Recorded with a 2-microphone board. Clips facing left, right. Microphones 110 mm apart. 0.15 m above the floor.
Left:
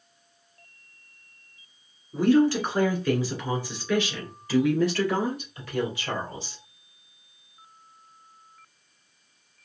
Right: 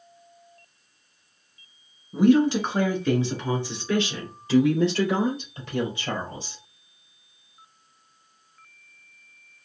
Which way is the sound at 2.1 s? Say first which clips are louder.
Right 2 dB; 15° right (ahead or behind).